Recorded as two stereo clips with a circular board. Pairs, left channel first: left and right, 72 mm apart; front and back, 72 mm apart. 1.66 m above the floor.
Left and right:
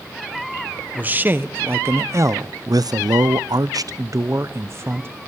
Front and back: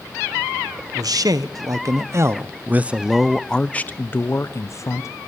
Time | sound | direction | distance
0.9 | a man speaking | 155° right | 1.6 m